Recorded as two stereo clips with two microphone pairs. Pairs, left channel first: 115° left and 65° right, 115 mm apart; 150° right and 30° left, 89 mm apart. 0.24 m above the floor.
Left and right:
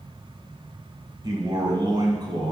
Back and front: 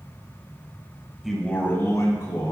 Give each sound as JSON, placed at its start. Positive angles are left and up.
{"t": 1.2, "sound": "a man speaking", "azimuth_deg": -60, "distance_m": 1.2}